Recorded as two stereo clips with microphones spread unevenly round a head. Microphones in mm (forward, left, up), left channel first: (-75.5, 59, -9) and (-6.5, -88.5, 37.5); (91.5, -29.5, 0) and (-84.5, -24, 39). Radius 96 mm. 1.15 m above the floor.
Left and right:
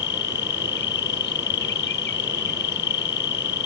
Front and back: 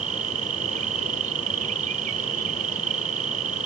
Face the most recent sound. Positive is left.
turn(degrees=125)